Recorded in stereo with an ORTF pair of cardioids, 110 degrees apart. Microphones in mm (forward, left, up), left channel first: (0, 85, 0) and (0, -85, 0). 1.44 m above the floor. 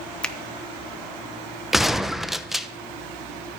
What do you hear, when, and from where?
0.2 s a finger snap: 5° left, 1.0 m
1.7 s a gunshot: straight ahead, 0.9 m